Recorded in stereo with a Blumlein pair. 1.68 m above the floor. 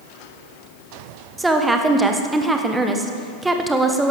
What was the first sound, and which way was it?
A woman speaking, 10° right.